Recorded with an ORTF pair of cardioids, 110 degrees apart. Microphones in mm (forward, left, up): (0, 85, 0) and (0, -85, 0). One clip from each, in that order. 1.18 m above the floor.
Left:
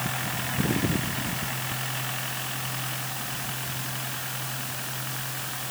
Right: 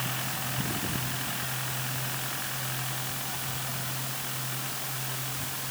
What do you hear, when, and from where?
Only background noise.